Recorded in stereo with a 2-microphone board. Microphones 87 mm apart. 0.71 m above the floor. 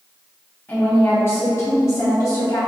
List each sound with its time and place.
0.7 s a woman speaking: 20° left (ahead or behind), 1.5 m; by 2.6 s 45° left (ahead or behind), 2 m